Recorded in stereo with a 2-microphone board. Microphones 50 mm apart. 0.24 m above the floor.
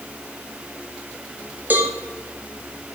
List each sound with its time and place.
1.7 s a cowbell: 40° right (ahead or behind), 0.8 m